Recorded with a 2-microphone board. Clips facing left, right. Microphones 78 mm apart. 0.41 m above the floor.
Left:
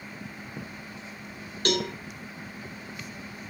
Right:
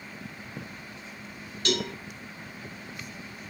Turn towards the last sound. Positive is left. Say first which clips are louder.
# left 2 dB
turn(degrees=45)  # may be behind; listen again after turning